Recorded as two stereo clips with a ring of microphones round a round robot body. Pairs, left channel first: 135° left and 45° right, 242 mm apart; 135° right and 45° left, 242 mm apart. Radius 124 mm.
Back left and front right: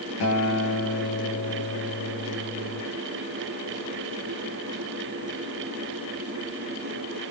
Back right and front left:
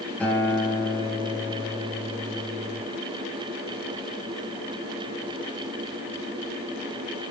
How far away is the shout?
No shout in this recording.